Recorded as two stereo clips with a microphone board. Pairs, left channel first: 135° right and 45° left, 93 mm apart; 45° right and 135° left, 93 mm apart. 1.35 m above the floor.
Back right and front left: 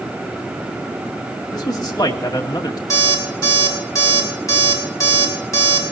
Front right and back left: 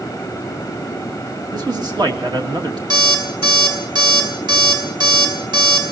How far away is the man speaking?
About 2 m.